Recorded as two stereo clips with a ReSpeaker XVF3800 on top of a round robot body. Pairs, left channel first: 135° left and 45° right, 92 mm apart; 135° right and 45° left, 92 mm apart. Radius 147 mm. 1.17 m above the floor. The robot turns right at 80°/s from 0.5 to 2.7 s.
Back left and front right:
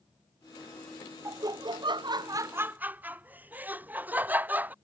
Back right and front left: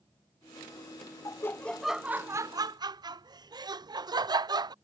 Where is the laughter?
95° right; by 4.7 s 20° left.